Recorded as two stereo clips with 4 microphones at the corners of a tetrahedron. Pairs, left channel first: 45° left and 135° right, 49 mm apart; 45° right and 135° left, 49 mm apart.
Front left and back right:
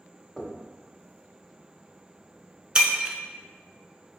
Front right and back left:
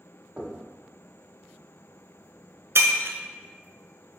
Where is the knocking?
125° left, 0.8 m.